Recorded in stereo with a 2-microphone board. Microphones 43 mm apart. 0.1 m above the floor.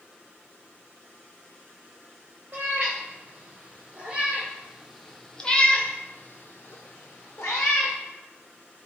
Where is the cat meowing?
40° right (ahead or behind), 1.7 m; by 8.0 s 85° left, 1.4 m.